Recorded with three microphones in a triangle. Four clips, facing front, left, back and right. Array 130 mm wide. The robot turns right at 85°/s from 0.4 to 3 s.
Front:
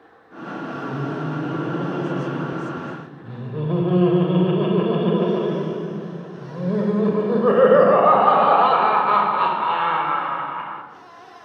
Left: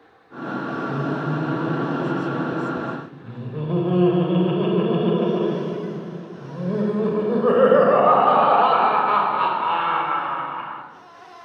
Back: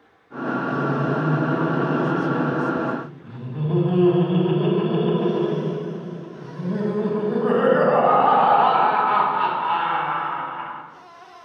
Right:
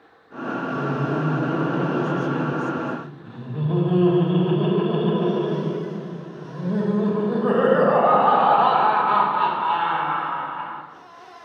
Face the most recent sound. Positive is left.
turn(degrees=25)